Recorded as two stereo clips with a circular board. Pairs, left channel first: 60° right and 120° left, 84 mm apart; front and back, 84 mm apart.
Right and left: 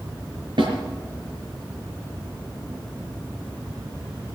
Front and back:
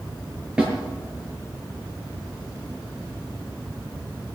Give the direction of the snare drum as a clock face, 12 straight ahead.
9 o'clock.